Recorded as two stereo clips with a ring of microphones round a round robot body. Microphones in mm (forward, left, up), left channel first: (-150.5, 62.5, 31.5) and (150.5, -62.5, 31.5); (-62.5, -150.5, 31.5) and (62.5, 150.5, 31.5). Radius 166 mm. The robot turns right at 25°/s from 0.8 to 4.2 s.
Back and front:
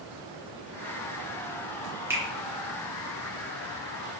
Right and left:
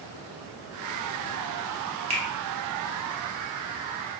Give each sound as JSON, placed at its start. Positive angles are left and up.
{"t": 2.1, "sound": "a finger snap", "azimuth_deg": 45, "distance_m": 1.0}